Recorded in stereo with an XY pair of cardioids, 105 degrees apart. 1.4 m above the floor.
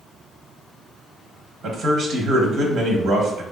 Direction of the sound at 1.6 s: 70° right.